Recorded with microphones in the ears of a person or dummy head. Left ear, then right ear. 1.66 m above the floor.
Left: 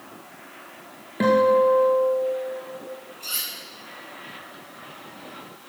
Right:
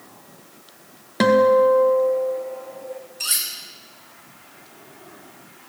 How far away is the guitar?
About 1.3 m.